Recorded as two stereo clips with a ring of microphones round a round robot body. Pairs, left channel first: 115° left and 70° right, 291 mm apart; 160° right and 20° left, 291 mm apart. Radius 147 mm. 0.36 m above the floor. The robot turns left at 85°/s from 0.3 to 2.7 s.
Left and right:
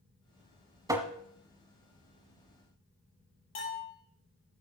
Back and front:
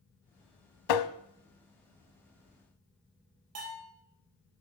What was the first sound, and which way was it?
Tapping, 145° right.